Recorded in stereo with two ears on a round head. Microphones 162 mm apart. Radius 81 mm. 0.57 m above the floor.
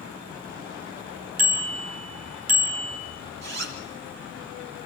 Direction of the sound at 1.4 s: 50° right (ahead or behind).